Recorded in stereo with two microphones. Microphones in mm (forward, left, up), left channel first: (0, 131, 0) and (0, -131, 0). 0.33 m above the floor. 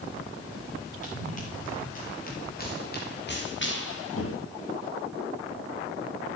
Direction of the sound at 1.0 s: 30° left (ahead or behind).